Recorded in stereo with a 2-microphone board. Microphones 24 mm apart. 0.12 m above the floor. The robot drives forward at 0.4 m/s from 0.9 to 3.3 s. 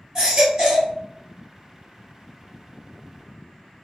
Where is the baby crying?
25° right (ahead or behind), 1.5 m.